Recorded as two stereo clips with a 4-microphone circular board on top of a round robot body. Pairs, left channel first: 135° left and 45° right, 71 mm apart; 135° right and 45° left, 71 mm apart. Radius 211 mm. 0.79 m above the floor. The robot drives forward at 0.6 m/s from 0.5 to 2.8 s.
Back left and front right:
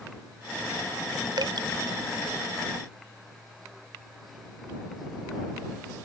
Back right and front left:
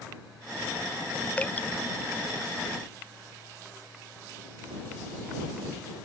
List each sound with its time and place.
1.4 s dripping: 65° right